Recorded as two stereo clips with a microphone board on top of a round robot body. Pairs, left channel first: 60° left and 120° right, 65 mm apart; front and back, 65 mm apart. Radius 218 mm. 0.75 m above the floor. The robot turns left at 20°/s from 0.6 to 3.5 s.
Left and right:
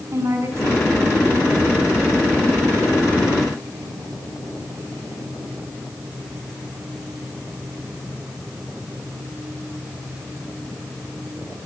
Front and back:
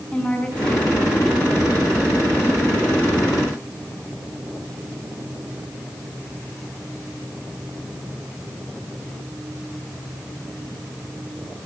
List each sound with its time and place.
0.1 s a woman speaking: 75° right, 7 m; by 1.4 s 90° right, 7 m